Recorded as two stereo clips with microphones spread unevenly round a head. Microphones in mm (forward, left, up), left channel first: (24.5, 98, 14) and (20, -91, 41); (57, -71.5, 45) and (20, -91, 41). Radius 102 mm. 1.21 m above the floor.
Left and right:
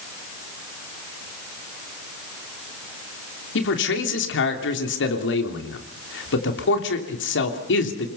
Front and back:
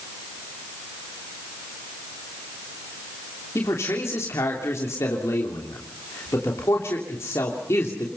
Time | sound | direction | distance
3.5 | a man speaking | 65° left | 3 m